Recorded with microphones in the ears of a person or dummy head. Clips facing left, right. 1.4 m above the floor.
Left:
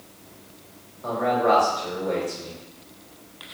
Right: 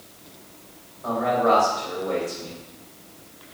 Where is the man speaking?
40° left (ahead or behind), 1.9 m.